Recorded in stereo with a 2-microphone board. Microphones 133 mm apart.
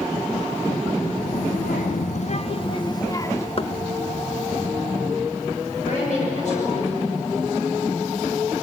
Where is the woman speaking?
55° left (ahead or behind), 6.5 m.